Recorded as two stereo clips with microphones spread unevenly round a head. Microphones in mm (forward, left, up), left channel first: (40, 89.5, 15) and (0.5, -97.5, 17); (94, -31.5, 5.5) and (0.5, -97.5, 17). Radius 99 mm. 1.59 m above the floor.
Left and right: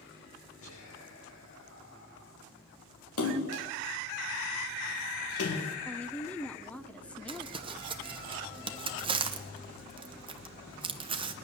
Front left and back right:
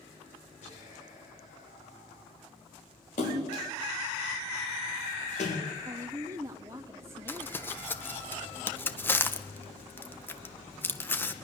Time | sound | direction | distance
0.6 | whispering | 75° left | 3.5 m
3.2 | a splash | 80° left | 2.5 m
5.8 | a woman speaking | 160° left | 0.6 m
7.3 | crumpling | 40° right | 1.0 m